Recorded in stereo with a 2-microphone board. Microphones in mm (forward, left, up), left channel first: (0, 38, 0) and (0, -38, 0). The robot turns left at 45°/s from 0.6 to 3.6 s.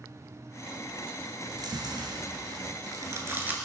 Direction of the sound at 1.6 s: 60° right (ahead or behind).